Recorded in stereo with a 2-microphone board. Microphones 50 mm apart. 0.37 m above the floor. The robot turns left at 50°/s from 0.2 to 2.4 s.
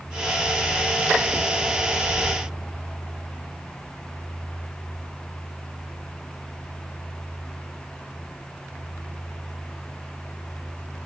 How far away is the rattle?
I don't hear a rattle.